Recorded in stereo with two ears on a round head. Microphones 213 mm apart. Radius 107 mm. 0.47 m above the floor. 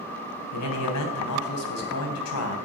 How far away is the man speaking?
About 4 m.